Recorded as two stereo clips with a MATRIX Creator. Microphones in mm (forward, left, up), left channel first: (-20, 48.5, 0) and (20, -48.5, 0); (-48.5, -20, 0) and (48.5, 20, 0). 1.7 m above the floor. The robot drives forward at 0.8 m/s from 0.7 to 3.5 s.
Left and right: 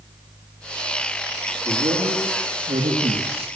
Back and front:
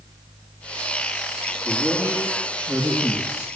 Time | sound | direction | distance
1.6 | a man speaking | 45° right | 4 m